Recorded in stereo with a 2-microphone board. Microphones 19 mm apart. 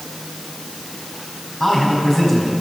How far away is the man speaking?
About 5.5 m.